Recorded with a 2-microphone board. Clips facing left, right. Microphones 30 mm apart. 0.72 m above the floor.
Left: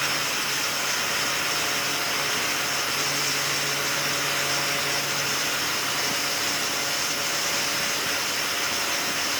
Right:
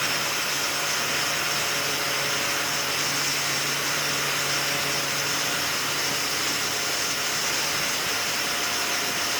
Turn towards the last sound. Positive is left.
No sound to turn to.